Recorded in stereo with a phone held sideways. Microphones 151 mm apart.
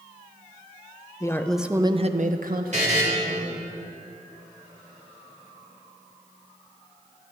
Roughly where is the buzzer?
Right.